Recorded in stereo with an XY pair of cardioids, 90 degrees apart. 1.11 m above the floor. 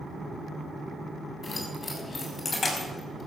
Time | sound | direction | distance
1.4 | keys jangling | 30° left | 6 m